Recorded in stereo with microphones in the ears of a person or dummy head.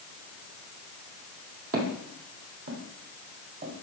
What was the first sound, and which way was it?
Footsteps, 50° right (ahead or behind).